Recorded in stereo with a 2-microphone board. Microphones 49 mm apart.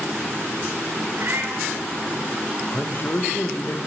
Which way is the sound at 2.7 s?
45° left (ahead or behind).